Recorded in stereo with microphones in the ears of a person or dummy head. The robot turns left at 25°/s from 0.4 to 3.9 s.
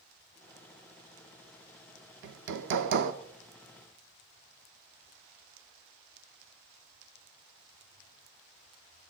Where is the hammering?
65° right (ahead or behind), 1.3 m; by 3.1 s 50° right (ahead or behind), 1.3 m.